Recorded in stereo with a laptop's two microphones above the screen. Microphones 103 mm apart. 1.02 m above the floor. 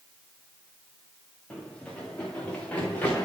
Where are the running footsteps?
5° left (ahead or behind), 4 m; by 3.3 s 15° left (ahead or behind), 4.5 m.